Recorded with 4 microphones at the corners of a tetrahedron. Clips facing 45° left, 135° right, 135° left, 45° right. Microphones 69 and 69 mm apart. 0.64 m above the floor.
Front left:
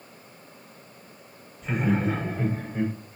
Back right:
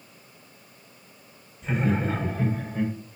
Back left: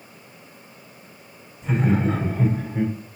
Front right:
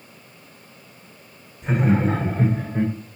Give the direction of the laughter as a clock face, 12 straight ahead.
1 o'clock.